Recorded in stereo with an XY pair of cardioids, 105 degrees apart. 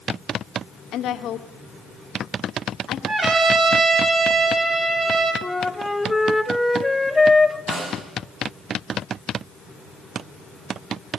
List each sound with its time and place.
0.9 s a woman speaking: 70° left, 1.4 m
3.1 s a trumpet: 45° right, 4 m
5.4 s a flute: 10° left, 1.6 m
7.7 s a snare drum: 55° right, 8 m